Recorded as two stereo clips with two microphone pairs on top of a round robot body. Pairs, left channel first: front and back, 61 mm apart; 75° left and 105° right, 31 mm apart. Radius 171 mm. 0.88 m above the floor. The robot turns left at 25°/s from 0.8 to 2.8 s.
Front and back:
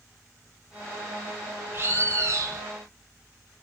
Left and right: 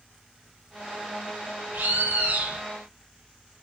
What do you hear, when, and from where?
1.7 s a bird: 125° right, 0.6 m; by 2.6 s 150° right, 0.6 m